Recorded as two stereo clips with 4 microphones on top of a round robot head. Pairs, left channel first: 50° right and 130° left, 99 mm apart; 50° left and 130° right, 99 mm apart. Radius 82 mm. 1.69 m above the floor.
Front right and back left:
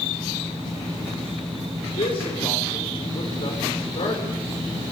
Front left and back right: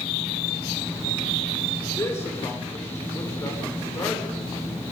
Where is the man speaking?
15° right, 7 m.